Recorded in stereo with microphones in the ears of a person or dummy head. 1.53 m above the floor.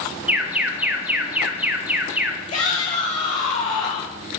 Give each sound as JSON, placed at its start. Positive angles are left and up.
{"t": 0.3, "sound": "an alarm", "side_deg": -10, "distance_m": 0.6}
{"t": 2.5, "sound": "a shout", "side_deg": 35, "distance_m": 3.0}